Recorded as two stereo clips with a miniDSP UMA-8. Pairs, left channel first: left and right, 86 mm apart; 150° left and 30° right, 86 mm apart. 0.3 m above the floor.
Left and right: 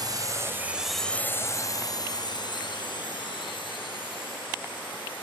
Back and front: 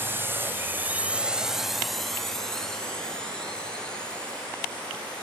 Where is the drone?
85° right; by 5.2 s 75° left.